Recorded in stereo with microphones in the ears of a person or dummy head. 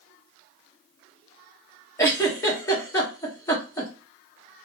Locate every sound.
2.0 s a giggle: 20° left (ahead or behind), 1.3 m